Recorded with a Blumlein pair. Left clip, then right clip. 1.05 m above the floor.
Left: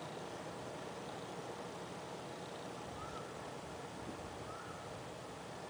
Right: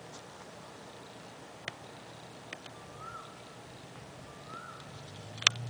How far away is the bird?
About 1.1 m.